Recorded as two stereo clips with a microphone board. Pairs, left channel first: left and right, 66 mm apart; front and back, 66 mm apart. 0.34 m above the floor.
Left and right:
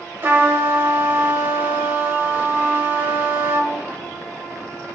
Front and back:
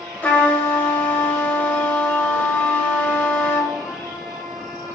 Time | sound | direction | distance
0.2 | a trumpet | 50° right | 1.1 m